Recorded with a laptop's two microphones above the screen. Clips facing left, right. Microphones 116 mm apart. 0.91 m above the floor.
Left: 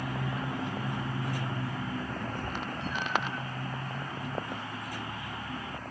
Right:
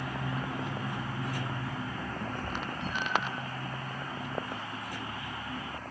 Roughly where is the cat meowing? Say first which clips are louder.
Even; right.